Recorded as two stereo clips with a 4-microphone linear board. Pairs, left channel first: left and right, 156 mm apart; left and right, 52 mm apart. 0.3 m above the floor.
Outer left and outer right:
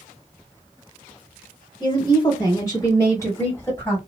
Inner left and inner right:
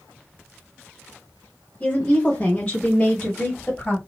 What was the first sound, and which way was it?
A woman speaking, 30° left (ahead or behind).